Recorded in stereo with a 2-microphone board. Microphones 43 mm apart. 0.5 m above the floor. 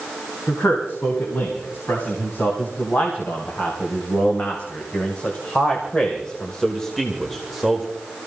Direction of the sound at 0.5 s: 65° left (ahead or behind).